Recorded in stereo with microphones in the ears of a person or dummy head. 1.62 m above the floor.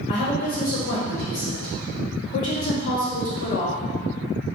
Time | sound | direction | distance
0.1 | a woman speaking | 45° left (ahead or behind) | 1.0 m